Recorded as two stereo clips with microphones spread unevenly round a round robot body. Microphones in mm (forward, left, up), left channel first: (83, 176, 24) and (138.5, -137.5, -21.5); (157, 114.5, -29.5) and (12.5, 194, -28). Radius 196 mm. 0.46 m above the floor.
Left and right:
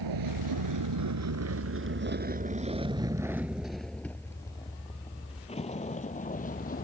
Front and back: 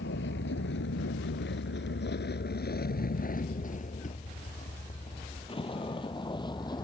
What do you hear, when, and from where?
0.0 s a vehicle: 65° right; by 6.8 s 35° left